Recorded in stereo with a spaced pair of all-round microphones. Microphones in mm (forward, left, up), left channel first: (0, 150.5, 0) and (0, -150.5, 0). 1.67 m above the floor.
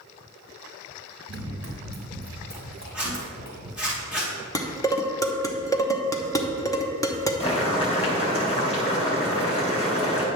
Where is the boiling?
20° left (ahead or behind), 3 m.